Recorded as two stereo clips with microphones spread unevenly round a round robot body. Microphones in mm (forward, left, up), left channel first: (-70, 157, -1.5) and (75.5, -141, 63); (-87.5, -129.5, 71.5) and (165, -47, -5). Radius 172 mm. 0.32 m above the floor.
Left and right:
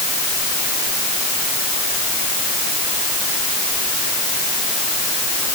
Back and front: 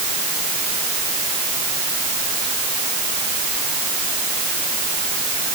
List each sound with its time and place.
Only background noise.